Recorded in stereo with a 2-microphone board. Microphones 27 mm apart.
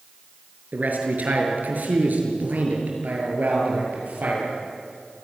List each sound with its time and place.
0.7 s a man speaking: 75° right (ahead or behind), 6 m; by 4.5 s 65° right (ahead or behind), 8.5 m